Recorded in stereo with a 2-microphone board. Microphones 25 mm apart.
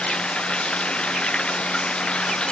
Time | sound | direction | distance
0.0 | running water | 45° left (ahead or behind) | ?